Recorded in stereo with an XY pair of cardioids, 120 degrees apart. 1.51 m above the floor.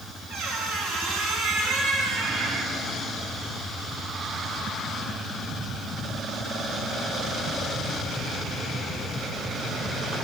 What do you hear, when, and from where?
0.3 s a squeak: 60° right, 2 m